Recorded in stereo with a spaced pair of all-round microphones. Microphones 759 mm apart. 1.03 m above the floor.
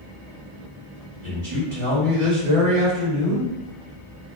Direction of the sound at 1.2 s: 40° right (ahead or behind).